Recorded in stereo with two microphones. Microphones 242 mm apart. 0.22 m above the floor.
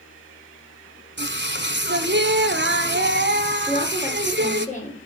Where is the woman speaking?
30° left (ahead or behind), 3.5 m.